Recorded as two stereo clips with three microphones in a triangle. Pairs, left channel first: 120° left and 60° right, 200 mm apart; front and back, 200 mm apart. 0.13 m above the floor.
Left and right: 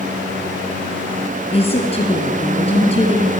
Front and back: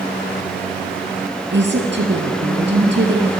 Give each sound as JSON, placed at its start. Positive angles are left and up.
{"t": 1.5, "sound": "a woman speaking", "azimuth_deg": 175, "distance_m": 3.0}